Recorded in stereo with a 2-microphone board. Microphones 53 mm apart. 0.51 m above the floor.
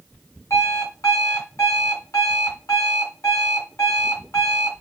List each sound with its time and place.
0.5 s an alarm clock: 70° left (ahead or behind), 2.5 m